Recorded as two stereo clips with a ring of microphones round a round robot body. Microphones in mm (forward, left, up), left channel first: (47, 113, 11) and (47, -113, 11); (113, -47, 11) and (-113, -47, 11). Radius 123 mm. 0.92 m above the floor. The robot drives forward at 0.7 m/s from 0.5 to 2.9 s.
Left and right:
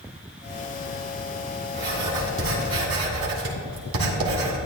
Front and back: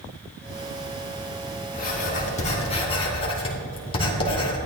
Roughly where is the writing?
Ahead right.